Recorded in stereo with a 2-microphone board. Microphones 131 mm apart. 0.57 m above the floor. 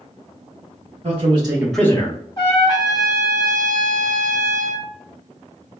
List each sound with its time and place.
1.0 s a man speaking: 50° right (ahead or behind), 0.9 m; by 2.2 s 40° left (ahead or behind), 0.8 m
2.4 s a trumpet: 35° left (ahead or behind), 0.9 m